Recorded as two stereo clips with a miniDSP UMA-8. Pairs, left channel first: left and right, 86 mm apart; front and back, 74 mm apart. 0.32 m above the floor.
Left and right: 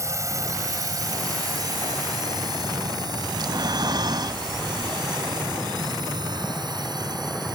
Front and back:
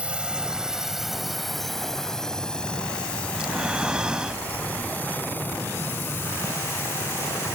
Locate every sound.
0.0 s a drone: 115° right; by 7.5 s 55° right
3.3 s breathing: 105° right